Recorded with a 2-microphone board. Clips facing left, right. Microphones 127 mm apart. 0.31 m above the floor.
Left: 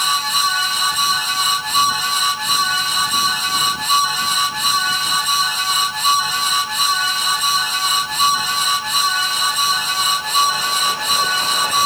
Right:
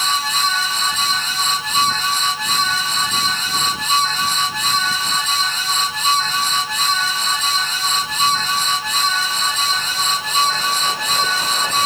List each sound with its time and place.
Only background noise.